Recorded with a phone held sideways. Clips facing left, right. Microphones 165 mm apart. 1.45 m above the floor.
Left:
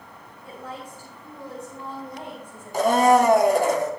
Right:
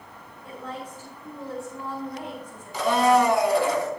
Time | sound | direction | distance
0.4 | a woman speaking | 10° left (ahead or behind) | 5.5 m
2.7 | a blender | 45° left (ahead or behind) | 1.1 m